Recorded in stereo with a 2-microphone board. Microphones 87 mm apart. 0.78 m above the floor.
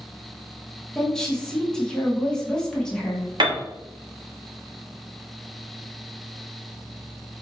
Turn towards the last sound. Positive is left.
turn(degrees=-65)  # may be behind; listen again after turning